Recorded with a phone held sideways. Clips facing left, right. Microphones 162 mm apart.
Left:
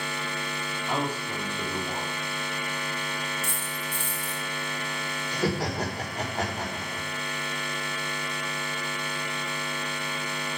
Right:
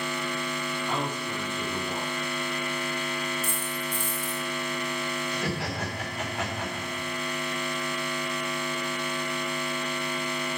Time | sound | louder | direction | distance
0.9 | a man speaking | left 4 dB | 15° left (ahead or behind) | 3.5 m
3.4 | a dropped coin | right 3 dB | 70° left (ahead or behind) | 6 m
5.3 | laughter | left 3 dB | 40° left (ahead or behind) | 4.5 m